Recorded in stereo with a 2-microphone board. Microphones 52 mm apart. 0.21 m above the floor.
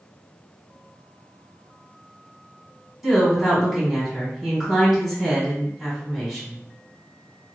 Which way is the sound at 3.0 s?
5° right (ahead or behind).